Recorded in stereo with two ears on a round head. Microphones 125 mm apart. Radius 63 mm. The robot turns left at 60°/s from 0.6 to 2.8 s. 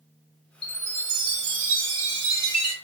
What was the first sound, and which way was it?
A chime, straight ahead.